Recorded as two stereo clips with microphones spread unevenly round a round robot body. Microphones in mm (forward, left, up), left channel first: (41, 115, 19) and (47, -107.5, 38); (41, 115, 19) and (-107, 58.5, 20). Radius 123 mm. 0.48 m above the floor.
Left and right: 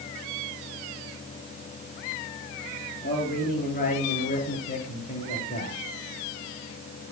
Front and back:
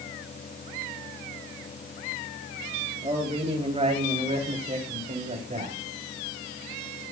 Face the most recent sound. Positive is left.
turn(degrees=155)